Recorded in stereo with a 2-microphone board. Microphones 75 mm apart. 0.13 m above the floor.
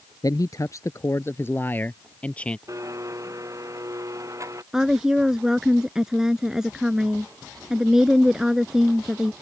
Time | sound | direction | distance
0.2 | a man speaking | 55° left (ahead or behind) | ?
2.7 | a blender | 45° right (ahead or behind) | ?
4.7 | a woman speaking | 10° right (ahead or behind) | ?